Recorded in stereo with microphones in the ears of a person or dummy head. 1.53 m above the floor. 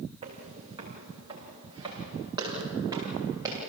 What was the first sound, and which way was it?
Footsteps, 30° right (ahead or behind).